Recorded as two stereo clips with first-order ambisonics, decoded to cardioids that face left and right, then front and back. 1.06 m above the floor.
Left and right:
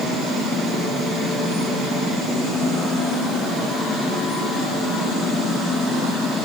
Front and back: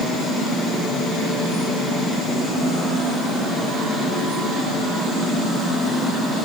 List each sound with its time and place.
Only background noise.